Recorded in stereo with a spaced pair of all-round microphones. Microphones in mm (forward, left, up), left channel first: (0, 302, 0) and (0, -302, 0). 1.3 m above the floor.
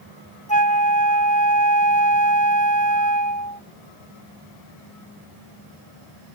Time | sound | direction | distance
0.5 | a flute | 10° left (ahead or behind) | ?